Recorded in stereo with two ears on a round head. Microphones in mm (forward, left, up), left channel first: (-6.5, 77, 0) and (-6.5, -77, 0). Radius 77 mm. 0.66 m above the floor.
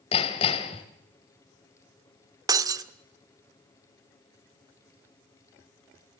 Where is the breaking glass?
20° right (ahead or behind), 0.9 m.